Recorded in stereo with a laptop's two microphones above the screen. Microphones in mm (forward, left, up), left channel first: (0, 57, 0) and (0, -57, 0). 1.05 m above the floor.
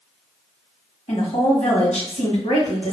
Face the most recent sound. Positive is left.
turn(degrees=70)  # may be behind; listen again after turning